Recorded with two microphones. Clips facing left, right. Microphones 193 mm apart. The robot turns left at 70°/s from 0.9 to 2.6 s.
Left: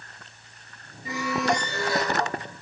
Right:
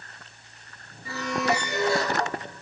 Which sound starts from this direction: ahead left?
A squeak, at 1.1 s.